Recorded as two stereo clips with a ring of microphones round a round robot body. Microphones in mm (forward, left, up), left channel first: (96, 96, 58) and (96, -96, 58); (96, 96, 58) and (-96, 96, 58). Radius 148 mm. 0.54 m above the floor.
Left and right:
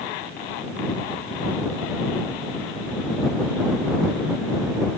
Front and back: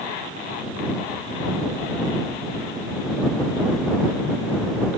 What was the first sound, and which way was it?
Only background noise.